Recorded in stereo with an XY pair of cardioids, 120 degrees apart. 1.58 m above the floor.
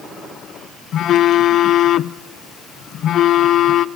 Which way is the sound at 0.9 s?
60° left.